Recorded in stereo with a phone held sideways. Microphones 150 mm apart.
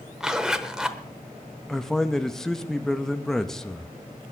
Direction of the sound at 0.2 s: 5° right (ahead or behind).